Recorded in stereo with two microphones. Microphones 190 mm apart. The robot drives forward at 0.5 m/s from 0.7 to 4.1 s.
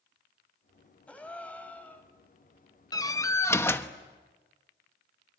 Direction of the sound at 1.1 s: 5° left (ahead or behind).